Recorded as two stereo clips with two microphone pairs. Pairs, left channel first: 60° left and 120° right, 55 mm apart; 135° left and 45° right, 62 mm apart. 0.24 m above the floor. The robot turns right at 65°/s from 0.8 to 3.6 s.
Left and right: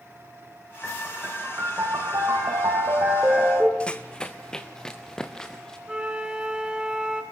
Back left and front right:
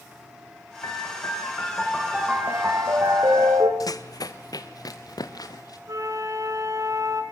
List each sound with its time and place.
0.8 s a piano: 140° left, 4.5 m; by 3.7 s 40° right, 4.5 m
3.8 s running footsteps: 130° left, 0.9 m; by 5.8 s 140° left, 3.5 m
5.9 s a flute: 50° right, 3 m